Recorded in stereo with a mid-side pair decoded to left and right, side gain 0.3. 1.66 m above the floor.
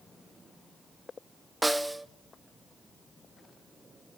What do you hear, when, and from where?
1.6 s a snare drum: 15° right, 1.3 m